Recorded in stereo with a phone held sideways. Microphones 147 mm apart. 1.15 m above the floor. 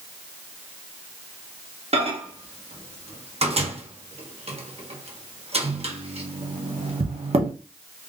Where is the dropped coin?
I don't hear a dropped coin.